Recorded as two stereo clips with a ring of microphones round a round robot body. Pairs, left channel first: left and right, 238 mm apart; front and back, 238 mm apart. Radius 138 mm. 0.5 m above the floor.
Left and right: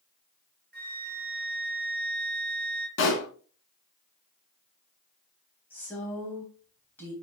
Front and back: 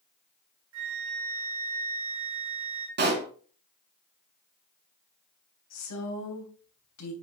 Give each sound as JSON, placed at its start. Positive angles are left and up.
{"t": 0.7, "sound": "a flute", "azimuth_deg": -140, "distance_m": 2.5}
{"t": 3.0, "sound": "a pop", "azimuth_deg": 130, "distance_m": 2.0}
{"t": 5.7, "sound": "a woman speaking", "azimuth_deg": 5, "distance_m": 3.0}